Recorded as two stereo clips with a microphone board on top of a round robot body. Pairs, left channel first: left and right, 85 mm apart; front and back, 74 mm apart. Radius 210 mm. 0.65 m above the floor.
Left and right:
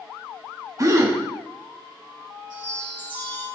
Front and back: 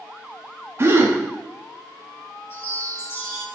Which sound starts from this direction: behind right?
A gasp, at 0.8 s.